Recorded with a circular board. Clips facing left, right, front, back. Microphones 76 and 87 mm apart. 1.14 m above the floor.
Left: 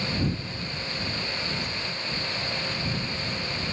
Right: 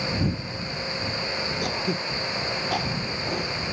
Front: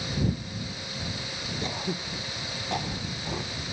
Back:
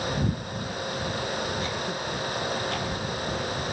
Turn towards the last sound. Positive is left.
turn(degrees=-70)